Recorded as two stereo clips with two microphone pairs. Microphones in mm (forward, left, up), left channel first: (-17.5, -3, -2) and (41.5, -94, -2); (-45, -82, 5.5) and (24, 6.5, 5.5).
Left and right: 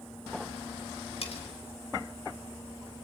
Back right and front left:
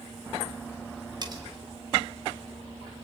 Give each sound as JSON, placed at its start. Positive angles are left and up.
{"t": 1.2, "sound": "cutlery clinking", "azimuth_deg": 100, "distance_m": 3.0}